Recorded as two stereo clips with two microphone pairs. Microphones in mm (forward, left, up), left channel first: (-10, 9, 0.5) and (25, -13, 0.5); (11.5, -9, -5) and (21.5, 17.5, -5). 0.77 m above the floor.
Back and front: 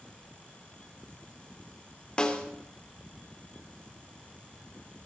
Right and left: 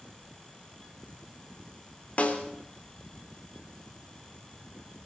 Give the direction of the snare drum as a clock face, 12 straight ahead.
5 o'clock.